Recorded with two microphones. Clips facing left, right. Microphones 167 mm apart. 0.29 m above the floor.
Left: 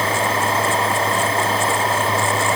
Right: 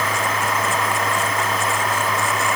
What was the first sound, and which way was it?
Only background noise.